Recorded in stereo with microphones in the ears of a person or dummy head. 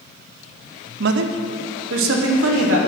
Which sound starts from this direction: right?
A man speaking, at 1.0 s.